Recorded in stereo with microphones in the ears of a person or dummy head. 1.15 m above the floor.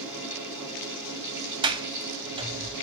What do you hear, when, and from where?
0.0 s a fan: 10° right (ahead or behind), 4 m
1.6 s a sliding door: 25° right (ahead or behind), 0.7 m